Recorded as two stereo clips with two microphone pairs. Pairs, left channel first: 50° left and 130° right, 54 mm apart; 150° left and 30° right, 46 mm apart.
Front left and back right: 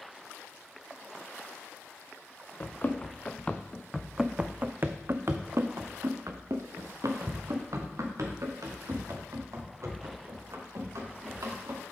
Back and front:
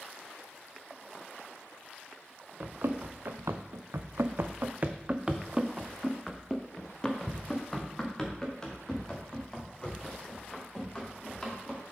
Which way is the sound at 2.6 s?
Straight ahead.